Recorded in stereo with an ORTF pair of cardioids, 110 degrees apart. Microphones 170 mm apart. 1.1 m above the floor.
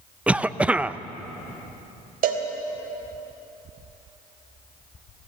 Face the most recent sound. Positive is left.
turn(degrees=-65)